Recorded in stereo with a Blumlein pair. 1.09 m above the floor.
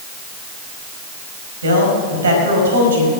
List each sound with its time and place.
1.6 s a man speaking: 70° right, 5 m